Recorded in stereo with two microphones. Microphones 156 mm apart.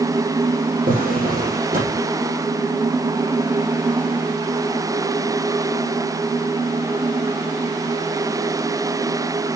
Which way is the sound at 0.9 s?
60° right (ahead or behind).